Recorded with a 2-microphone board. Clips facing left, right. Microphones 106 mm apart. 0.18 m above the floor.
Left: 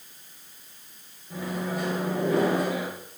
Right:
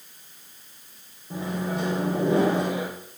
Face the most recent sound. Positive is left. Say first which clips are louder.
# right 2 dB
turn(degrees=-30)  # may be behind; listen again after turning